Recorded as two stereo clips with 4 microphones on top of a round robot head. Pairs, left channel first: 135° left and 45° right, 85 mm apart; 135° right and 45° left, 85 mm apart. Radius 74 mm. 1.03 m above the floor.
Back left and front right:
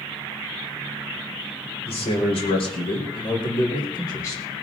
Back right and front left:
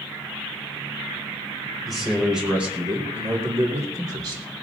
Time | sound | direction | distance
1.9 | a man speaking | 135° left | 4.5 m